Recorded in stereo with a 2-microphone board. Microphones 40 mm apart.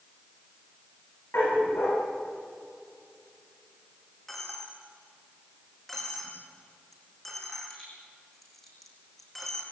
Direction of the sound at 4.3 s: 10° left (ahead or behind).